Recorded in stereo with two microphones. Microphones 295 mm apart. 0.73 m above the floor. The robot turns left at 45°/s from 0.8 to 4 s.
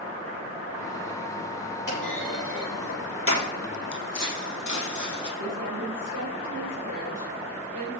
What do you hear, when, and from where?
1.9 s a clunk: 75° left (ahead or behind), 7 m; by 3.4 s 35° left (ahead or behind), 7 m
3.9 s footsteps: 55° left (ahead or behind), 2 m; by 5.3 s 65° left (ahead or behind), 1.9 m
5.4 s a woman speaking: 70° right (ahead or behind), 3 m